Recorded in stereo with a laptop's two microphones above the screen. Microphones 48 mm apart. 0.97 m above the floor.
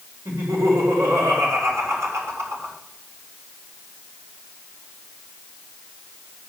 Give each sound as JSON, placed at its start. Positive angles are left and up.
{"t": 0.2, "sound": "laughter", "side_deg": -80, "distance_m": 4.5}